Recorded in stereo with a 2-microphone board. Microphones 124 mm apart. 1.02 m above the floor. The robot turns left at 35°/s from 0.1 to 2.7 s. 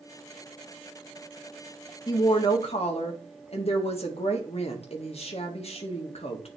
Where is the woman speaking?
35° left (ahead or behind), 1.5 m; by 6.5 s 55° left (ahead or behind), 1.5 m.